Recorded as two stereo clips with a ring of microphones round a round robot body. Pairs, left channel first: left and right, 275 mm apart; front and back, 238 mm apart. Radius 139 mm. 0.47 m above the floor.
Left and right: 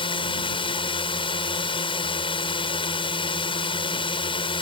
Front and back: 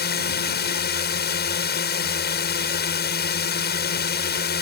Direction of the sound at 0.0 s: 25° left.